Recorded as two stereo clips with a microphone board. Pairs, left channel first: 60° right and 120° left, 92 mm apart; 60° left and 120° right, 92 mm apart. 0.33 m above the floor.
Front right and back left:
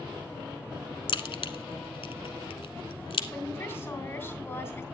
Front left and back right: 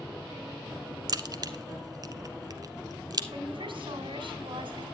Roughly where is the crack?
Right.